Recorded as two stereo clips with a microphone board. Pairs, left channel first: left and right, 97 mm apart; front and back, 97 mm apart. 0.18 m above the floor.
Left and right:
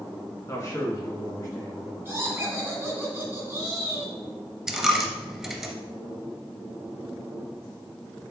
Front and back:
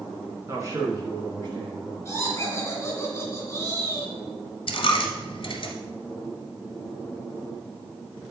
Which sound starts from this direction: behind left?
A man speaking, at 0.5 s.